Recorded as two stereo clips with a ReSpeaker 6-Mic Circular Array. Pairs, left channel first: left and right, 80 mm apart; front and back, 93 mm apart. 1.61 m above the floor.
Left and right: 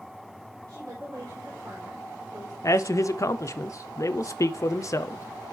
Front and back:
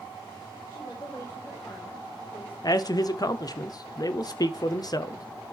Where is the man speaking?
45° left, 0.8 m.